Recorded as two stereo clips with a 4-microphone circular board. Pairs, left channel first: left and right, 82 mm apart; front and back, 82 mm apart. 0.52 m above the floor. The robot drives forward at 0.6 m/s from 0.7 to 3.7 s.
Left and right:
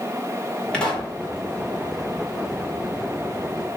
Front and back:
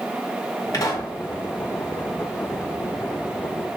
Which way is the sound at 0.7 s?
15° left.